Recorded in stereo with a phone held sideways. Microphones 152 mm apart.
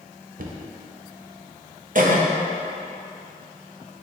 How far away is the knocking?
About 0.5 m.